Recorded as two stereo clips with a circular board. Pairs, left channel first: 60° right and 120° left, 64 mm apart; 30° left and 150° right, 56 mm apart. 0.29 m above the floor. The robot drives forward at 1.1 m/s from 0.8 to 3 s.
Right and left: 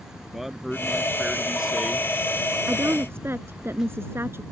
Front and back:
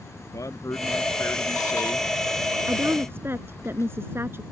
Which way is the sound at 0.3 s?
35° left.